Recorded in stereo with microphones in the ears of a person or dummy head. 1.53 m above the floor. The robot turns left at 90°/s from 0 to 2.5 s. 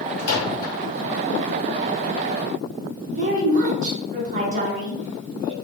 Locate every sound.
0.2 s a microwave: 65° left (ahead or behind), 0.8 m; by 0.7 s 45° left (ahead or behind), 0.8 m
3.1 s a woman speaking: 45° right (ahead or behind), 0.6 m